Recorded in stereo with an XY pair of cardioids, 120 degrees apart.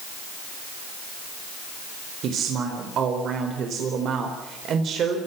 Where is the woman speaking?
55° right, 4.5 m.